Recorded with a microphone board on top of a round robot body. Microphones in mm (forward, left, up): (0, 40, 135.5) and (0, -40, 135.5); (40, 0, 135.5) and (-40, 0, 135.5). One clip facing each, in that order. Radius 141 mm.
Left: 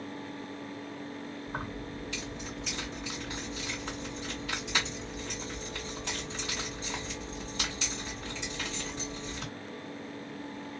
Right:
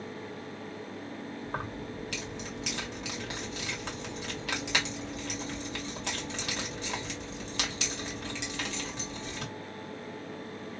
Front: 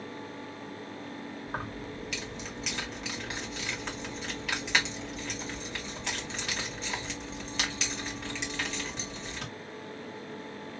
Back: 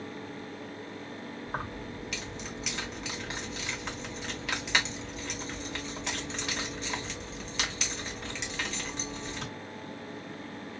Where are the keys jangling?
90° right, 1.6 m.